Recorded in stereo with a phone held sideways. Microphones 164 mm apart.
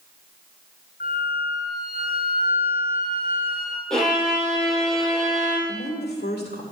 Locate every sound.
1.0 s a flute: 75° left (ahead or behind), 2.5 m
3.9 s a violin: centre (ahead or behind), 6.5 m
5.7 s a woman speaking: 75° left (ahead or behind), 2.5 m